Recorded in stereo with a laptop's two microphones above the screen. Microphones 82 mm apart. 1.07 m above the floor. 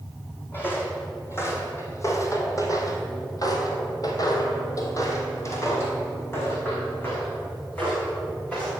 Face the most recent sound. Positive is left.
turn(degrees=20)  # may be behind; listen again after turning